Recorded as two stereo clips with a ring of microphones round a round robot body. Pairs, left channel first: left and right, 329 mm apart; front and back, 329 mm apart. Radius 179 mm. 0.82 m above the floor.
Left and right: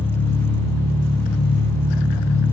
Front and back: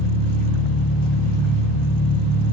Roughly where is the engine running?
Ahead.